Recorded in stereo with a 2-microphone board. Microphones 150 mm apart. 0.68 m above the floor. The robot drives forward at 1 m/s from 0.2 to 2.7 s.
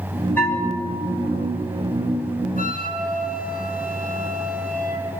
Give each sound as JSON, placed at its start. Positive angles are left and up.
{"t": 0.4, "sound": "a bell", "side_deg": 10, "distance_m": 1.8}
{"t": 2.6, "sound": "a flute", "side_deg": 75, "distance_m": 2.0}